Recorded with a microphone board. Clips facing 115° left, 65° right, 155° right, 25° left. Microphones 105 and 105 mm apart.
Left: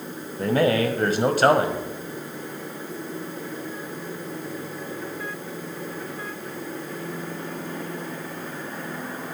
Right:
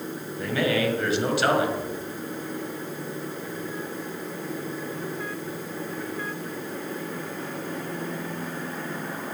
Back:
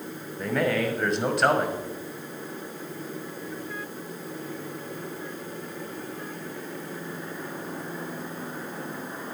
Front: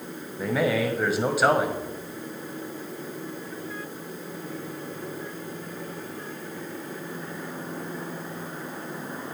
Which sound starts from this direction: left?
A man speaking, at 0.4 s.